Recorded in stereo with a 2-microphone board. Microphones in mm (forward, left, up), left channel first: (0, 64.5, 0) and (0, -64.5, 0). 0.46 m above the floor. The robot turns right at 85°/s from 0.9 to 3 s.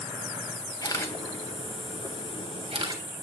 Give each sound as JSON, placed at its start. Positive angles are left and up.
{"t": 0.8, "sound": "a camera shutter", "side_deg": 30, "distance_m": 2.5}